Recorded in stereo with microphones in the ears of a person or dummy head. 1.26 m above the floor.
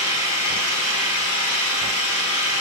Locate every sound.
0.0 s an engine running: 85° left, 10 m